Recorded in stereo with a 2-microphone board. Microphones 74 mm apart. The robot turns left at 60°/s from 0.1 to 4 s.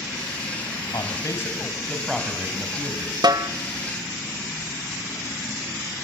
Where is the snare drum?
65° right (ahead or behind), 0.7 m; by 3.5 s 50° right (ahead or behind), 0.7 m.